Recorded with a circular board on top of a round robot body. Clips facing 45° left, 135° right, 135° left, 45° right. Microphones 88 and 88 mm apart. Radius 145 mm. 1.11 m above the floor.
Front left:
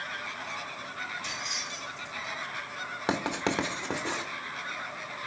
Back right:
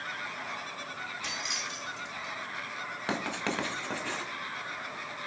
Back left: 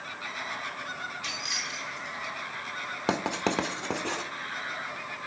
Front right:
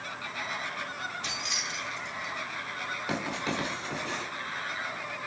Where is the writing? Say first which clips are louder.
Front left 4 dB, back left 5 dB; 115° left, 1.3 m.